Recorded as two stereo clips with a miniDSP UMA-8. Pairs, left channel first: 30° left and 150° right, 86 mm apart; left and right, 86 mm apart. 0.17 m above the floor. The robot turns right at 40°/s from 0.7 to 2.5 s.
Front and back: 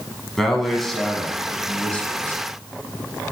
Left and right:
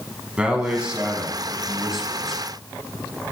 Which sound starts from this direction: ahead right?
A man speaking, at 0.4 s.